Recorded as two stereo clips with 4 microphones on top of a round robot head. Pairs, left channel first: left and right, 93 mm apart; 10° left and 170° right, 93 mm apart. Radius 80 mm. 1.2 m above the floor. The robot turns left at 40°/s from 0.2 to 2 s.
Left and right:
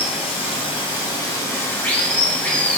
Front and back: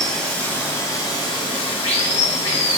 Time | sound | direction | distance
0.0 | running water | 90° left | 1.9 m